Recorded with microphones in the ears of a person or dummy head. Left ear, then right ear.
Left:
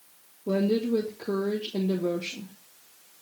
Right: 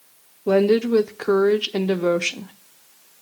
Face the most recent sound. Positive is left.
turn(degrees=-35)  # may be behind; listen again after turning